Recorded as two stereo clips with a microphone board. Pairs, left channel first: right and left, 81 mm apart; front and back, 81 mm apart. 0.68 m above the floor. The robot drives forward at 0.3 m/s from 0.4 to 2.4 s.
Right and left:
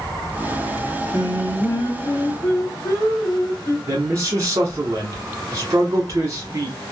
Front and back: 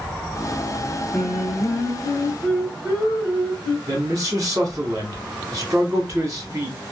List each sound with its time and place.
1.1 s singing: 100° right, 1.5 m; by 3.8 s 120° right, 1.6 m
3.9 s a man speaking: 135° left, 1.2 m